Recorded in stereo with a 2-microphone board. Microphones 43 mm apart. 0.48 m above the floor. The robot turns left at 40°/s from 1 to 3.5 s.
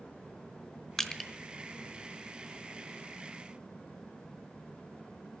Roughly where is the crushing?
Centre.